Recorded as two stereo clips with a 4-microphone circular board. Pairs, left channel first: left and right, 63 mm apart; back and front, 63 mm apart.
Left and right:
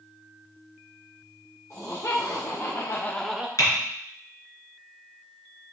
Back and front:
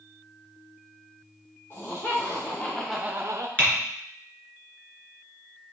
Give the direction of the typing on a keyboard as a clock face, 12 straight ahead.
8 o'clock.